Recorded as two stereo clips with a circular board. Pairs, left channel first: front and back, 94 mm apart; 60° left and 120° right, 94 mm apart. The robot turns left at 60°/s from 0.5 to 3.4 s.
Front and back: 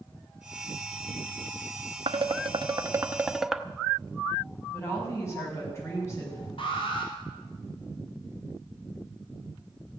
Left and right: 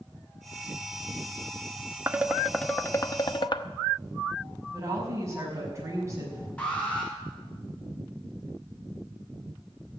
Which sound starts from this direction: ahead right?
A woman speaking, at 4.7 s.